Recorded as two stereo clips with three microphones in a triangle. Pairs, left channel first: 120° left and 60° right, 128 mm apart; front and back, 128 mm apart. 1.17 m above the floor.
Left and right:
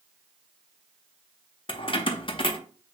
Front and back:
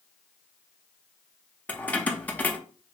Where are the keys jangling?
75° left, 0.5 m.